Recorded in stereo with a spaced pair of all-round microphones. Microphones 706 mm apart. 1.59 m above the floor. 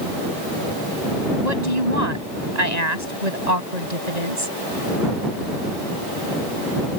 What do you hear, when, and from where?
1.4 s a woman speaking: 70° right (ahead or behind)